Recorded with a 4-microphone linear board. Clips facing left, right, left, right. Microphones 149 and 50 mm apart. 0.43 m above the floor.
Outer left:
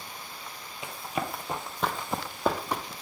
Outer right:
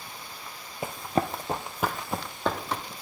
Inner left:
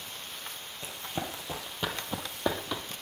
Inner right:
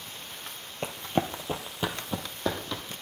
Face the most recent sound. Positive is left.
turn(degrees=15)  # may be behind; listen again after turning